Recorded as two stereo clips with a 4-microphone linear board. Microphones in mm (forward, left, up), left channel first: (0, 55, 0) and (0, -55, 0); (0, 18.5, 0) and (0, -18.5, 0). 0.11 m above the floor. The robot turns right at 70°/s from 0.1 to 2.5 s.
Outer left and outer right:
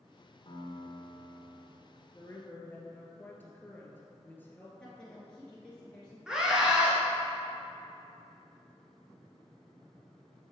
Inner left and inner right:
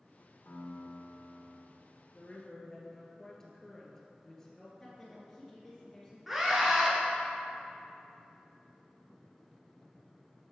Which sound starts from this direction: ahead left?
A piano, at 0.5 s.